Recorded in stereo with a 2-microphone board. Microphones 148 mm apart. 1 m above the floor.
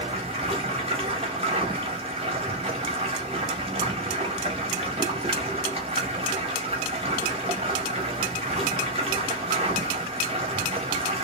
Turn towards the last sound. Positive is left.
turn(degrees=-40)  # may be behind; listen again after turning